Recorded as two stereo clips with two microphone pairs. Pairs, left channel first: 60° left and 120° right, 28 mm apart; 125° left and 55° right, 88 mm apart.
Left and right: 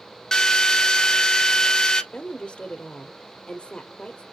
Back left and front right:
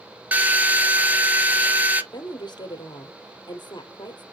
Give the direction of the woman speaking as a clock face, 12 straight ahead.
9 o'clock.